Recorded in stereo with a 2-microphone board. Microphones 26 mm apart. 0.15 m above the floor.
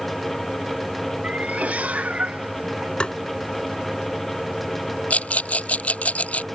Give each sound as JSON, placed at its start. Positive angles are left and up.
{"t": 1.2, "sound": "a cat meowing", "side_deg": -65}
{"t": 3.0, "sound": "tapping", "side_deg": 45}
{"t": 5.1, "sound": "a rattle", "side_deg": 70}